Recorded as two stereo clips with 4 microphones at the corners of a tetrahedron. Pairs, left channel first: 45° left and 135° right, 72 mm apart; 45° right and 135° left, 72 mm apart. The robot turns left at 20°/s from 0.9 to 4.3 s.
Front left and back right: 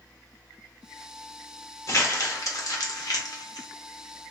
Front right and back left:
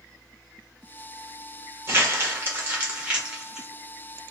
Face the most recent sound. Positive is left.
turn(degrees=40)